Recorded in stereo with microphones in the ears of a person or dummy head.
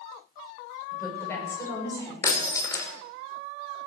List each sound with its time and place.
0.9 s a woman speaking: 20° left (ahead or behind), 7.5 m
2.2 s breaking glass: 20° left (ahead or behind), 2.5 m